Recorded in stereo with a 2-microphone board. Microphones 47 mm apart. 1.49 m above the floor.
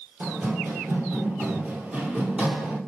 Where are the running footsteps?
40° right (ahead or behind), 2.0 m; by 2.8 s 25° right (ahead or behind), 1.8 m.